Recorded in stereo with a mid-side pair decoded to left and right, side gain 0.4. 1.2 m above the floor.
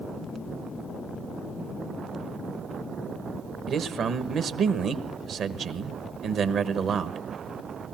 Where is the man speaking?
65° right, 1.2 m.